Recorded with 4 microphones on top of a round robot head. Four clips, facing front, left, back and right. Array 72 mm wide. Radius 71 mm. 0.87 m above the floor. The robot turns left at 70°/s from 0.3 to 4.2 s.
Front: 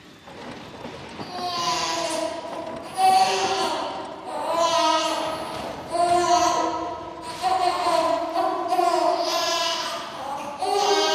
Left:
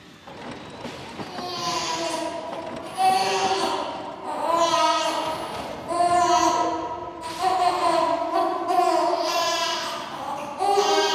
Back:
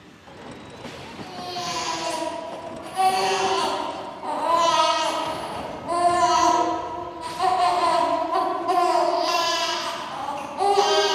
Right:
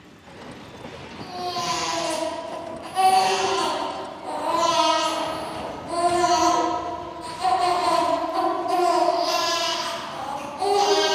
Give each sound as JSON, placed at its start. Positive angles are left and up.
{"t": 1.2, "sound": "a baby crying", "azimuth_deg": 15, "distance_m": 5.5}